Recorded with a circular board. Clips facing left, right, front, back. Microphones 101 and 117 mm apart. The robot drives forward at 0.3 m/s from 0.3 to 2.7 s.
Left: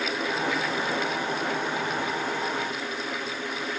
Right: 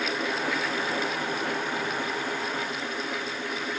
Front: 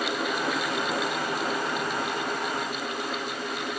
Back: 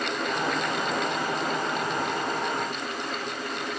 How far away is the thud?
I don't hear a thud.